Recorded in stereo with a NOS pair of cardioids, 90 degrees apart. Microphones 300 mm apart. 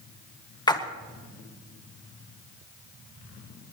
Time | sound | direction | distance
0.7 | a splash | 15° left | 1.9 m